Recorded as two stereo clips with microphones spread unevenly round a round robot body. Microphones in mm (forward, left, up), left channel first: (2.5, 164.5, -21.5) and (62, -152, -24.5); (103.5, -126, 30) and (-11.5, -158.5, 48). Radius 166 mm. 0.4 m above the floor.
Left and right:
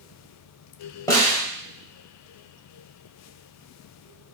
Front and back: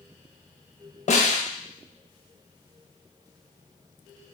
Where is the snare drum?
20° left, 1.0 m.